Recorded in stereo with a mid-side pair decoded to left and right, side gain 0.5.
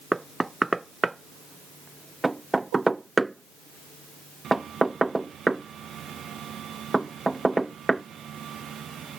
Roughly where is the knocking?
Ahead.